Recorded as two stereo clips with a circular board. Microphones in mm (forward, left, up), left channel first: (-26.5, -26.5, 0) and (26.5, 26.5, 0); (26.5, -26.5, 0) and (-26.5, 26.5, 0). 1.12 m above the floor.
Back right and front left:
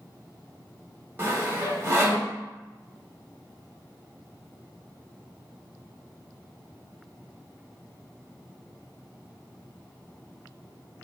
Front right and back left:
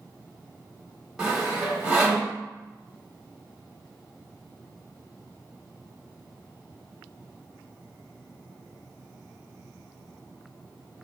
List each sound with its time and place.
1.2 s sawing: 65° left, 1.0 m